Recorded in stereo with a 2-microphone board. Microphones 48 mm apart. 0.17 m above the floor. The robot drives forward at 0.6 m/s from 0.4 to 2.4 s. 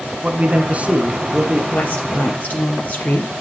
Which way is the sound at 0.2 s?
30° right (ahead or behind).